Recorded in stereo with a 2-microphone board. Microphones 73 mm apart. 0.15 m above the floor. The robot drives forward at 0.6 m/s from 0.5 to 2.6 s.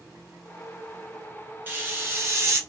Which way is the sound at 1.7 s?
30° right (ahead or behind).